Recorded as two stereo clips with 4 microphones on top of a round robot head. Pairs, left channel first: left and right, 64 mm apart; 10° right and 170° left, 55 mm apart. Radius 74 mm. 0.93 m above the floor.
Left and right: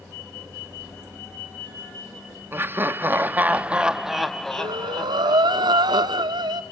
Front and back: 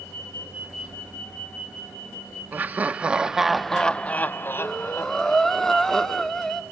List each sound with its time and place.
2.5 s laughter: 140° right, 1.1 m; by 5.6 s 20° left, 1.3 m
4.6 s breathing: 95° right, 1.3 m